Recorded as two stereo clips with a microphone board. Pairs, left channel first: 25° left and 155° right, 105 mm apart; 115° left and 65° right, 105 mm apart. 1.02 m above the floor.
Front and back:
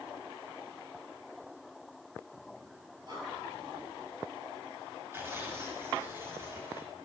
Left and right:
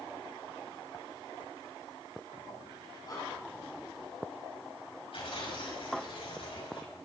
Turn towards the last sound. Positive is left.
turn(degrees=135)